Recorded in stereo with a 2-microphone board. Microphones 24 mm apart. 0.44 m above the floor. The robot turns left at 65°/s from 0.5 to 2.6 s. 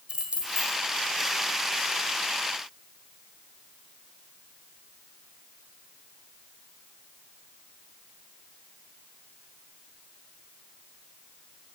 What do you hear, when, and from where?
0.1 s keys jangling: 45° right (ahead or behind), 1.6 m; by 0.8 s 30° right (ahead or behind), 1.6 m